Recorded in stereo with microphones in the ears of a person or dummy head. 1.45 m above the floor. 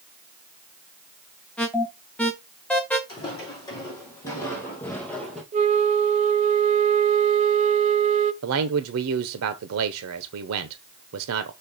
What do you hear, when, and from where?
1.6 s an alarm: 10° left (ahead or behind), 1.1 m
3.1 s footsteps: 25° left (ahead or behind), 4 m; by 5.4 s 5° left (ahead or behind), 2.5 m
5.5 s a flute: 40° right (ahead or behind), 0.7 m
8.4 s a man speaking: 85° right, 0.9 m